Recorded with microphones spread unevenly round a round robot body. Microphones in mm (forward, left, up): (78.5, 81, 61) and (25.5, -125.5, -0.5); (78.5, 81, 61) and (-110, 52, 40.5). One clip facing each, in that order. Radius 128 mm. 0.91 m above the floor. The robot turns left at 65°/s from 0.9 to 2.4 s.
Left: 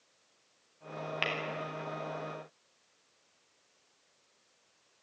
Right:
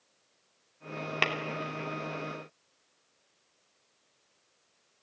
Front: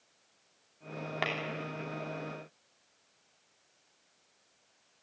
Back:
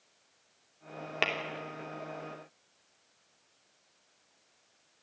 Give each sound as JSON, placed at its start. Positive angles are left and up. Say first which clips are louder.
{"t": 1.2, "sound": "tapping", "louder": "right 5 dB, back 2 dB", "azimuth_deg": -105, "distance_m": 3.0}